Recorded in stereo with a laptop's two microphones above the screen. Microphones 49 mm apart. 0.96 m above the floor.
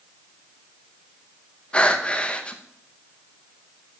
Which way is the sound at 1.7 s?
25° left (ahead or behind).